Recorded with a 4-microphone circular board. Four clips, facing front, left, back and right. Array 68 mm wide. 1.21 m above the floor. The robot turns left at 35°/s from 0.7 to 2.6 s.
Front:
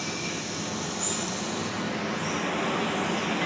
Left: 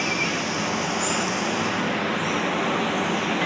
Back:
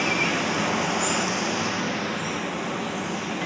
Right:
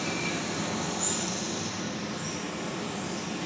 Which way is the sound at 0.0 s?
155° left.